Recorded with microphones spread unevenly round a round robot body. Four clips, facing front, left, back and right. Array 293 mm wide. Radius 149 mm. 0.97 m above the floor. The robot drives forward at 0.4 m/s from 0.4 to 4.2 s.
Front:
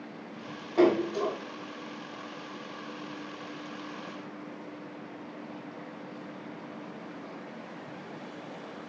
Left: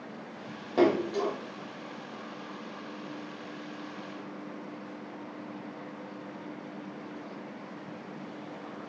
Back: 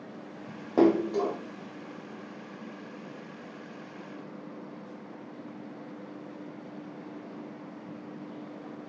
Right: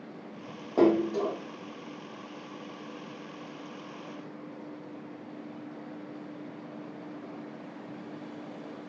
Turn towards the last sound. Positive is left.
turn(degrees=-175)